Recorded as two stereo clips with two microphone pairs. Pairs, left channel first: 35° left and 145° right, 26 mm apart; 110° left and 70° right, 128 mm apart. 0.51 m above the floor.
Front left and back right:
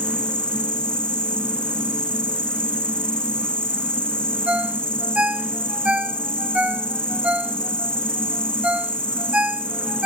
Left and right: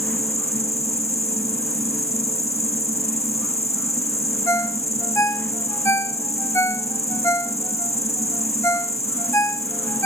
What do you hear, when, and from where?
0.0 s an insect: 80° left
4.5 s a ringtone: 175° left